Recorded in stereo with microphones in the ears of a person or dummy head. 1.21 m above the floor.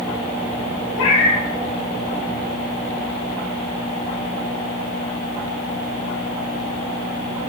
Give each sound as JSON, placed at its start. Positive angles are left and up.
{"t": 0.9, "sound": "a cat meowing", "side_deg": 80, "distance_m": 3.5}